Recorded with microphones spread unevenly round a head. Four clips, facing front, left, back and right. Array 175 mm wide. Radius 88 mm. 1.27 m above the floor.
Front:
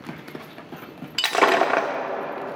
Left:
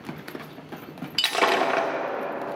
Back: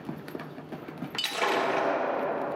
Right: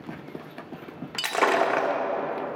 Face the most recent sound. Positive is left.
turn(degrees=5)